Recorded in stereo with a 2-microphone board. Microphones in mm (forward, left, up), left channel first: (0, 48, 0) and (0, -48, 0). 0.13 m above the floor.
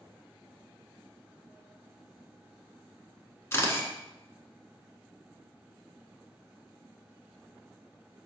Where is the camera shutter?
30° left (ahead or behind), 0.9 m.